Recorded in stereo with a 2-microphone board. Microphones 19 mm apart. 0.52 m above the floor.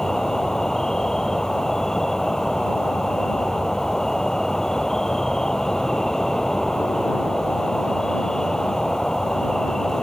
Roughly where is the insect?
Left.